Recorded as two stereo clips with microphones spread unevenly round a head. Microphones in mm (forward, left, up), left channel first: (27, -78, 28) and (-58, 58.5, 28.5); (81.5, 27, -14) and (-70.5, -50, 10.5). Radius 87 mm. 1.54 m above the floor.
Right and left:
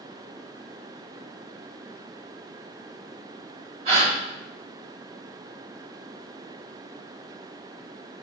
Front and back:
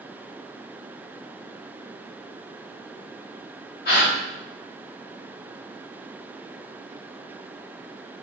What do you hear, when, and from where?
3.9 s a gasp: 65° left, 3 m